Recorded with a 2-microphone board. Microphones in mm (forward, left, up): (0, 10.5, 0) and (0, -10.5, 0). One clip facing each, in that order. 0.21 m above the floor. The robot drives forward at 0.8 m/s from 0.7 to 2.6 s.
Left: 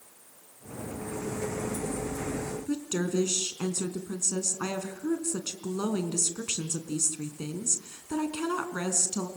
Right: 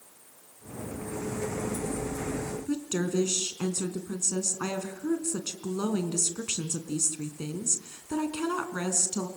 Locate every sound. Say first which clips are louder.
2.7 s a woman speaking: even; 5° left (ahead or behind), 2.5 m